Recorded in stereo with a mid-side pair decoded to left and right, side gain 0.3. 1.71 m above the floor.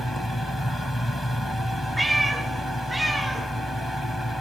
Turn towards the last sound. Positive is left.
turn(degrees=-15)